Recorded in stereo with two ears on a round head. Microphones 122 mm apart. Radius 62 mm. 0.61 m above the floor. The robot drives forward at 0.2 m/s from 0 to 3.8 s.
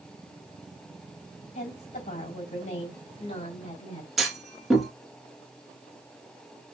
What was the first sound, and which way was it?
A woman speaking, 60° left (ahead or behind).